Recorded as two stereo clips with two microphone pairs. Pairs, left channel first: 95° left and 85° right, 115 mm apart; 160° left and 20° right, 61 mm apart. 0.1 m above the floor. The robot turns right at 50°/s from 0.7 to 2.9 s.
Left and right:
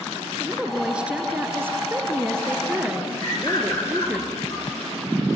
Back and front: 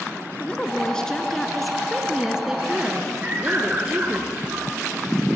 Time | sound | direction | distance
0.4 | a woman speaking | 160° right | 1.5 m
3.2 | a bird | 40° left | 9 m